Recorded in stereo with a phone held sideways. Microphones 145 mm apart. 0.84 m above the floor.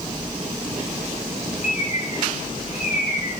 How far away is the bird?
About 4 m.